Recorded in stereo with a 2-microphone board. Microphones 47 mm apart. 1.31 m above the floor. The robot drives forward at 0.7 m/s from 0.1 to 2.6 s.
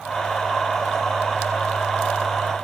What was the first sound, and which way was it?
Only background noise.